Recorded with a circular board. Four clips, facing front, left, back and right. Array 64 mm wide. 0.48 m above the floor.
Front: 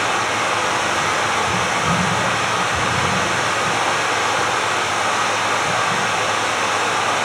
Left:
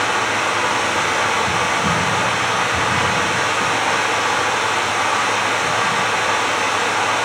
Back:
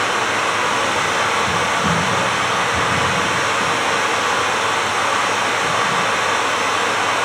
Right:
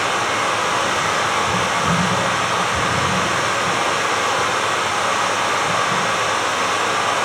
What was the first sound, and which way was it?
Running water, 140° left.